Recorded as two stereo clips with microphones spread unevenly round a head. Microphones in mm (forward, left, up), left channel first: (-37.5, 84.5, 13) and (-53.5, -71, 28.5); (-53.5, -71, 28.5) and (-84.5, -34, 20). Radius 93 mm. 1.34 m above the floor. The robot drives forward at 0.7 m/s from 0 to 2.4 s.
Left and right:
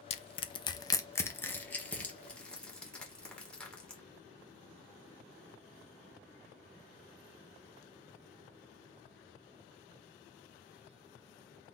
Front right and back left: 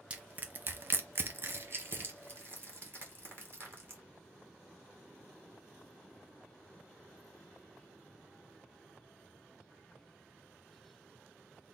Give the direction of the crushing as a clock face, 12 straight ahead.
9 o'clock.